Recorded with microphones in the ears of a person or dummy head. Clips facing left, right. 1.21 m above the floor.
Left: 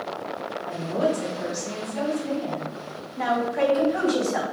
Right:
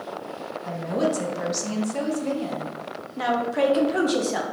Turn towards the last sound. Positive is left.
turn(degrees=-35)  # may be behind; listen again after turning